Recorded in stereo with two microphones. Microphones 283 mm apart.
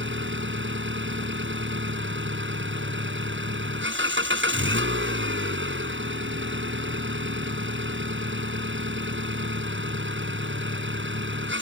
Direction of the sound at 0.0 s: 45° right (ahead or behind).